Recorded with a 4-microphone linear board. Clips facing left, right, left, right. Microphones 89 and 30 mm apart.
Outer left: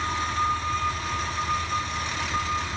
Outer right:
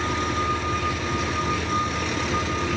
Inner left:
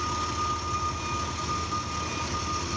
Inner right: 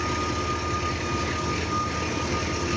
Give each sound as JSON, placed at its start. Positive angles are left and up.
{"t": 0.0, "sound": "an engine running", "side_deg": -80}